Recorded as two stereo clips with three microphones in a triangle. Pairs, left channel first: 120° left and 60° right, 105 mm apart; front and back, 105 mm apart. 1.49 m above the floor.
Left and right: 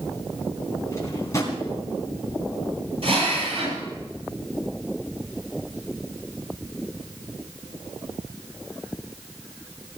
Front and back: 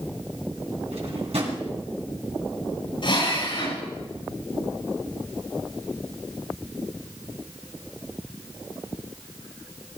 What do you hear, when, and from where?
0.9 s a drawer: 175° left, 3.5 m
3.0 s a drill: 40° right, 9.5 m